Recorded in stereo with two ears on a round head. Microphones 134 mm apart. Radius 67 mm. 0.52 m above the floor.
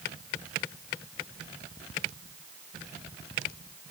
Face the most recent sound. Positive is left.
No sound to turn to.